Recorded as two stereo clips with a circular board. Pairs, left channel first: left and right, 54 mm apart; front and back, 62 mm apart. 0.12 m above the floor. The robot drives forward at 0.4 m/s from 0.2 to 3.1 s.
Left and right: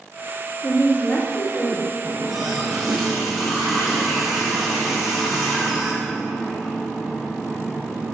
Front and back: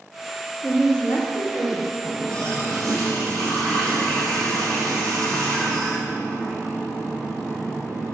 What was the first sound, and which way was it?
A woman speaking, 125° left.